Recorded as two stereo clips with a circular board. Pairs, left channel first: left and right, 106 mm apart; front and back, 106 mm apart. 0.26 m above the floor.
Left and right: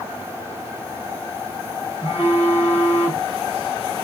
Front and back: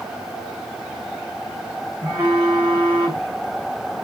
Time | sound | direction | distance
2.0 | a phone buzzing | 125° left | 3 m